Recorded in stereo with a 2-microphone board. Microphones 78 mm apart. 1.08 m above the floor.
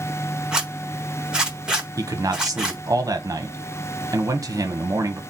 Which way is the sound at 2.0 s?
45° right (ahead or behind).